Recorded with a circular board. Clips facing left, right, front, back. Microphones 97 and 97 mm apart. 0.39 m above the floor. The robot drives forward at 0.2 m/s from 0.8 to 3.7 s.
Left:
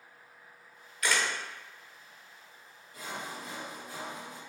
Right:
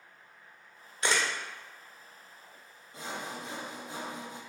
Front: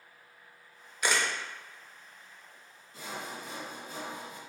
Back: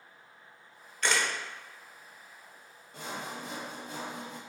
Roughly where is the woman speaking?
I don't hear a woman speaking.